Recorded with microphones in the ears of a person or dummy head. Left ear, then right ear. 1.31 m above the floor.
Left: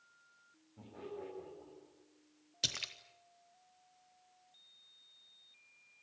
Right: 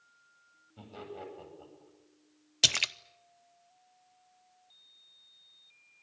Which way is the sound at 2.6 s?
40° right (ahead or behind).